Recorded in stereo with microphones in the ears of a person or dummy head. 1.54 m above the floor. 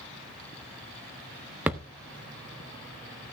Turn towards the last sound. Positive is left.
turn(degrees=-5)  # may be behind; listen again after turning